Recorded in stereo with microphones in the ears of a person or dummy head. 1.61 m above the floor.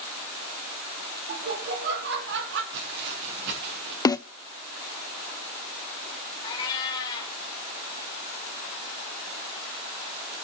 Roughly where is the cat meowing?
Left.